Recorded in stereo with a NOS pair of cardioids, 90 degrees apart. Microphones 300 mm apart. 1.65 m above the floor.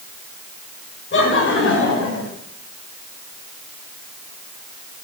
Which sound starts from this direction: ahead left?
Laughter, at 1.1 s.